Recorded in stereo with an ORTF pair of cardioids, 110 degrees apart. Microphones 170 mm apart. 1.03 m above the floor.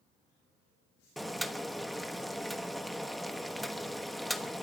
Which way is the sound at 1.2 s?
Straight ahead.